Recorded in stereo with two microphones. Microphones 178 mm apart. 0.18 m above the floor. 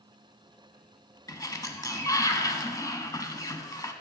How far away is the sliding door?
About 0.8 m.